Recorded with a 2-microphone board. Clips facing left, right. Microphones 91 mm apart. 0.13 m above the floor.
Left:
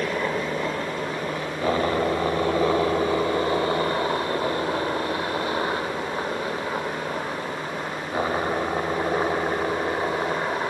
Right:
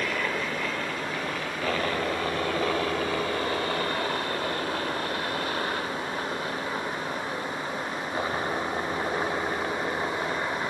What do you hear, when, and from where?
0.0 s a helicopter: 25° left (ahead or behind); by 10.7 s 20° left (ahead or behind)